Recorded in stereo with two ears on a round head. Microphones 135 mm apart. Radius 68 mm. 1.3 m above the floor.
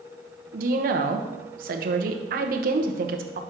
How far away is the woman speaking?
About 0.9 m.